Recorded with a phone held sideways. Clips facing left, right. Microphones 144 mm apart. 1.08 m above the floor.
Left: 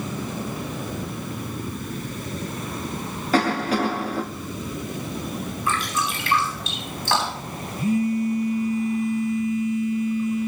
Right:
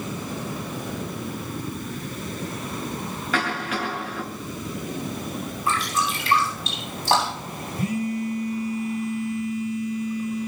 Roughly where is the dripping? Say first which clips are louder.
Right 1 dB; right.